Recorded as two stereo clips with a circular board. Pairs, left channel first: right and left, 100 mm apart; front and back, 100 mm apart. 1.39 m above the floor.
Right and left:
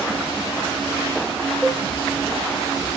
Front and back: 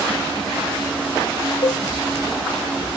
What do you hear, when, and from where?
1.6 s a cowbell: 10° right, 1.4 m